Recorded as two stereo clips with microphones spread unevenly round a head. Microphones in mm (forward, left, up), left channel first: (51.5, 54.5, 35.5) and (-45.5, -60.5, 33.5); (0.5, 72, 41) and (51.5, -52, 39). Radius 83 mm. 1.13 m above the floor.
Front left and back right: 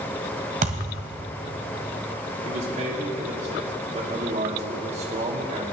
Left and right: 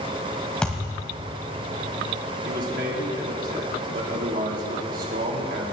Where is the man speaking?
85° right, 2.5 m.